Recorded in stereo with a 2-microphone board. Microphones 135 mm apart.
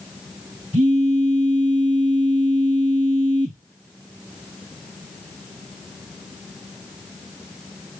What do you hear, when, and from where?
0.7 s a phone buzzing: 60° right (ahead or behind), 2 m